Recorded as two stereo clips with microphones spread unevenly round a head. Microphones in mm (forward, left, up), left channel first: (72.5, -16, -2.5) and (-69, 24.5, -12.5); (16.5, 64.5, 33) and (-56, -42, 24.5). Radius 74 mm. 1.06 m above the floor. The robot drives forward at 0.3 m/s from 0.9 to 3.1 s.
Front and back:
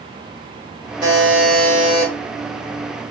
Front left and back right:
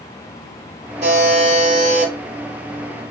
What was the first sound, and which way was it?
A buzzer, 140° right.